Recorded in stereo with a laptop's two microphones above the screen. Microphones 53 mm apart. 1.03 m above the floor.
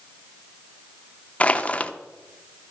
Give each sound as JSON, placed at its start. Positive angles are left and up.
{"t": 1.4, "sound": "crushing", "side_deg": 25, "distance_m": 0.8}